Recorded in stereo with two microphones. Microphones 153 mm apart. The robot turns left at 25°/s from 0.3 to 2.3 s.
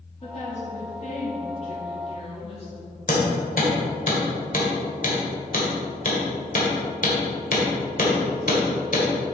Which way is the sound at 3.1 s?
65° left (ahead or behind).